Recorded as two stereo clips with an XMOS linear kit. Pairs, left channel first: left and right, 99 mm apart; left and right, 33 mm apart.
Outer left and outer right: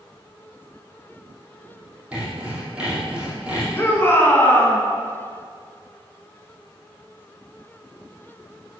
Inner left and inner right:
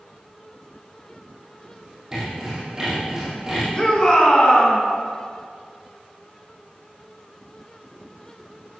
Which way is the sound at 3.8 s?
25° left (ahead or behind).